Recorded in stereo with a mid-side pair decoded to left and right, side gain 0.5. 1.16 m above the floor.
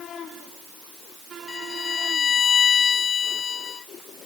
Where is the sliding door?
I don't hear a sliding door.